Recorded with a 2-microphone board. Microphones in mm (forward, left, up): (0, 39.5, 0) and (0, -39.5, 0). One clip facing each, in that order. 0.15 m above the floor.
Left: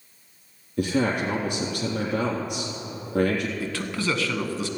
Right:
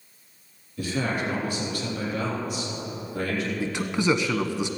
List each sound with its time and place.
0.8 s a man speaking: 65° left (ahead or behind), 3 m
3.6 s a man speaking: 20° right (ahead or behind), 1.0 m